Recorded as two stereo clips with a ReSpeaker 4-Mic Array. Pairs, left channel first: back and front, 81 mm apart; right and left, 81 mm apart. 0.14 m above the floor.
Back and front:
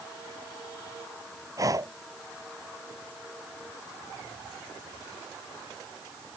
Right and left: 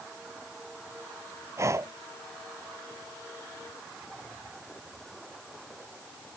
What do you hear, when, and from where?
1.6 s breathing: 45° left